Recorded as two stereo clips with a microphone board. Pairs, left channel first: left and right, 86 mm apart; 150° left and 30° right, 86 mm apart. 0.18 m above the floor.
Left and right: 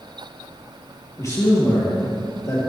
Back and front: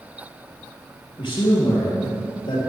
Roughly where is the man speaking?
Behind left.